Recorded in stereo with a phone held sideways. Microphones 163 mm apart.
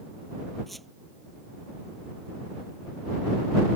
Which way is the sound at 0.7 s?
Centre (ahead or behind).